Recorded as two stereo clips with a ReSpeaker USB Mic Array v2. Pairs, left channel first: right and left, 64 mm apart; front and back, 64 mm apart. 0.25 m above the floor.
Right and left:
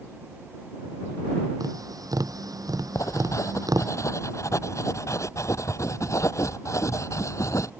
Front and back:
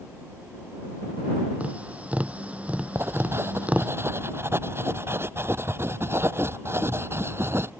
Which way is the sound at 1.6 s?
110° left.